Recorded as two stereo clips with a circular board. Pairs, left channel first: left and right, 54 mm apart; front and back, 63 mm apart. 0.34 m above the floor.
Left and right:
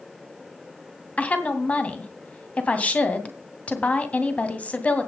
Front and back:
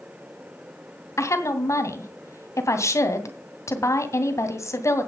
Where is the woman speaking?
30° left, 2.5 m.